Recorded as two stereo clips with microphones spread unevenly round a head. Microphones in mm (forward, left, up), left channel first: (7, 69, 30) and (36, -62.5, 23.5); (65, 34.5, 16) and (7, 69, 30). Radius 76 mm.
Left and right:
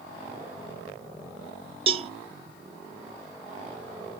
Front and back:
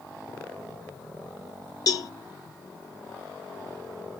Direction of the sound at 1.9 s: 30° right.